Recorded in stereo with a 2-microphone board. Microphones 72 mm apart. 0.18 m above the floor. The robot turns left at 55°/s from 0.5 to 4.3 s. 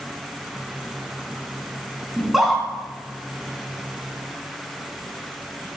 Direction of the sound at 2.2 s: 10° right (ahead or behind).